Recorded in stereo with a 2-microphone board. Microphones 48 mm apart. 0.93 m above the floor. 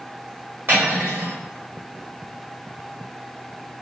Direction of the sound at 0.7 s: 45° right (ahead or behind).